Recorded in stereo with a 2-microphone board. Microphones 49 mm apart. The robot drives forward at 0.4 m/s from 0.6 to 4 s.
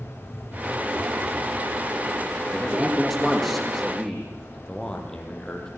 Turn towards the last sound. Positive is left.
turn(degrees=15)  # may be behind; listen again after turning